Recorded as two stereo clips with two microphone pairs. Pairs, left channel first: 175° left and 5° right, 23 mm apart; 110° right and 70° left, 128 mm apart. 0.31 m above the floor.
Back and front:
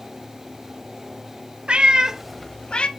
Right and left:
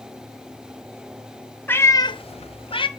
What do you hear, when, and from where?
1.7 s a cat meowing: 40° right, 0.8 m; by 2.9 s 155° right, 0.8 m